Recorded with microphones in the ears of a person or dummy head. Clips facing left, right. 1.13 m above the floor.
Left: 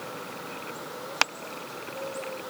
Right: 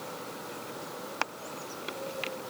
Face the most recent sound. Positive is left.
No sound to turn to.